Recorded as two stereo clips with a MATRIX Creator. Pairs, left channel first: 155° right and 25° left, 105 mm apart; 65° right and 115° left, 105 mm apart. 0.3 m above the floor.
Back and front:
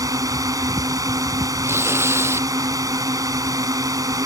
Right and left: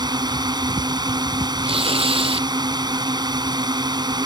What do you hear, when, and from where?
0.0 s a drone: 75° left
1.6 s tearing paper: 85° left